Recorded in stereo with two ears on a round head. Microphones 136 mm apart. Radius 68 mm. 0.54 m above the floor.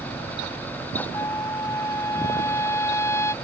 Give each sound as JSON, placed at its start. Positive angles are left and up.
{"t": 1.1, "sound": "a trumpet", "side_deg": 20}